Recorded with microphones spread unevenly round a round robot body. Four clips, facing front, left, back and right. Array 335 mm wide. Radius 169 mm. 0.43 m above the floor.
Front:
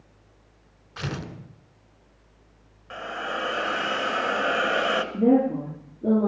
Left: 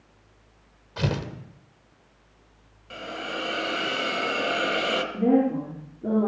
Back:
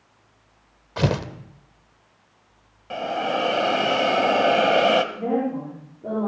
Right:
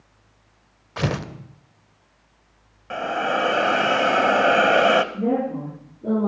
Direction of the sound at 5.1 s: 20° left.